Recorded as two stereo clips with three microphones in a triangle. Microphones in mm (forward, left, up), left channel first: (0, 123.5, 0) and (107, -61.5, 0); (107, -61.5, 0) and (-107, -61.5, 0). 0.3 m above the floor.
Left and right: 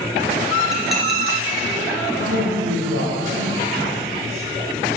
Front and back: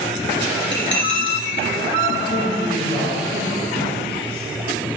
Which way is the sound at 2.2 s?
60° right.